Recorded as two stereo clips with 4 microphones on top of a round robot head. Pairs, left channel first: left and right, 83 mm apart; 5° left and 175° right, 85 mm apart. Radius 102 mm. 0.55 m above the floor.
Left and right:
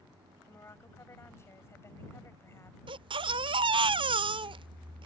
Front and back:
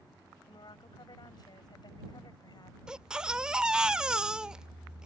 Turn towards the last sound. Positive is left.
turn(degrees=-95)